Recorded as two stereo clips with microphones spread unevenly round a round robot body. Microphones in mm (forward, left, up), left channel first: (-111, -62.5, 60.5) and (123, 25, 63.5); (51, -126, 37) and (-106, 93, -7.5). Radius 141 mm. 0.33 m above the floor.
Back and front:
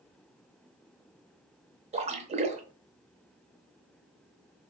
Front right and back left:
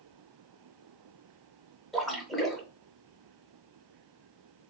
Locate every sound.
1.9 s a splash: 55° left, 0.6 m